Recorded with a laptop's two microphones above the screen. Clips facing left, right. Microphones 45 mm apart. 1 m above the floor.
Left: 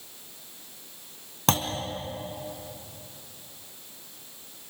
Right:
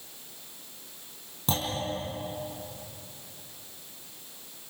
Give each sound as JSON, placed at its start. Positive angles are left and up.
{"t": 1.5, "sound": "a clunk", "side_deg": 70, "distance_m": 3.5}